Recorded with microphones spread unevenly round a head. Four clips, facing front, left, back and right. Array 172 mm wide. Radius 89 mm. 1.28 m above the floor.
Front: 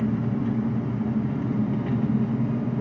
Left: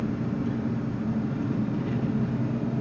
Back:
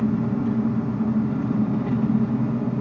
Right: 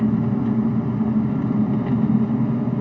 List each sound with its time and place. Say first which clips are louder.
0.0 s an engine running: right 8 dB, back 3 dB; 115° right, 1.1 m